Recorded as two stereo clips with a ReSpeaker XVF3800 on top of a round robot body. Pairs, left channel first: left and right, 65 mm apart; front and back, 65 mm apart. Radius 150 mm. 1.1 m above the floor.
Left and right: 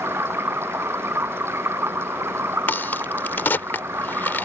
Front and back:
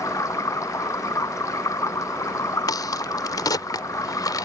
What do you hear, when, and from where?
0.0 s running water: 35° right
2.7 s a crack: 30° left